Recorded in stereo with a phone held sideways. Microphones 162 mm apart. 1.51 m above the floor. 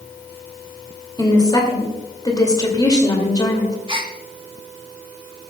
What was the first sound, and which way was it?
A woman speaking, 25° left (ahead or behind).